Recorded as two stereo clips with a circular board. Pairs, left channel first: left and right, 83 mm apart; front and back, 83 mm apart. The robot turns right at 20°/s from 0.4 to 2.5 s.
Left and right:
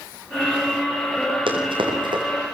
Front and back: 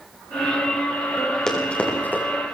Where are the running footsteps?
80° right, 5.5 m; by 2.2 s 65° right, 5.5 m.